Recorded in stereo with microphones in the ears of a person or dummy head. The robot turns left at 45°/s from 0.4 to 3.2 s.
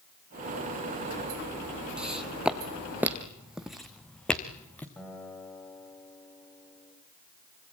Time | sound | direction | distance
2.0 | footsteps | 5° right (ahead or behind) | 1.8 m
5.0 | a guitar | 5° left (ahead or behind) | 6.5 m